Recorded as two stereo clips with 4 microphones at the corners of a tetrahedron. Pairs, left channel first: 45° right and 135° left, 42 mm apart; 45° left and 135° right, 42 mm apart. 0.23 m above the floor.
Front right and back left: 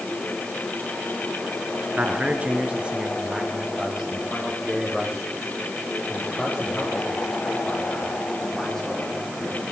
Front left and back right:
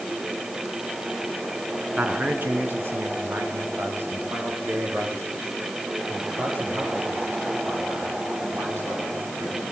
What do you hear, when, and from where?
2.0 s a man speaking: 175° left, 3.5 m; by 9.7 s 130° right, 14 m